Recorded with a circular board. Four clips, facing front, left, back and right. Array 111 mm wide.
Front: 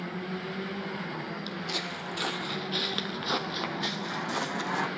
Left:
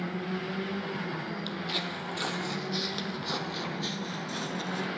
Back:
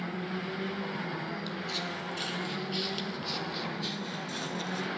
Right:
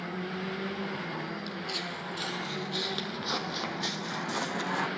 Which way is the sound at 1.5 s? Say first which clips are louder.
Left 2 dB, front 1 dB; 55° left.